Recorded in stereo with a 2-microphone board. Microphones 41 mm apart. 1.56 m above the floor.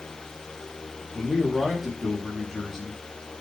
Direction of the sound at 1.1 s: 5° right (ahead or behind).